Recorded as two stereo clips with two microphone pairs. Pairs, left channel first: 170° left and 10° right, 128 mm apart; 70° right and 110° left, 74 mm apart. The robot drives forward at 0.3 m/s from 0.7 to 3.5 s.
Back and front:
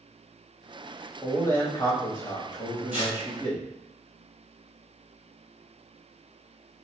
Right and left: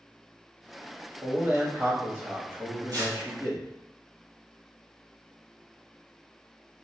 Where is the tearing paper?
150° left, 1.8 m.